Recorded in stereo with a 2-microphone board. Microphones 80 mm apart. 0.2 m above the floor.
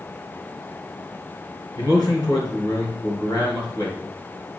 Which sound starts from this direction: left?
A man speaking, at 1.8 s.